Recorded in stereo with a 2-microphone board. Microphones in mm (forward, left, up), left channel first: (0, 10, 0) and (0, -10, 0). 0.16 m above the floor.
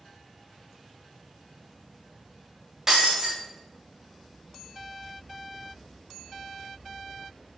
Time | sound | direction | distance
2.9 | breaking glass | 20° right (ahead or behind) | 4.5 m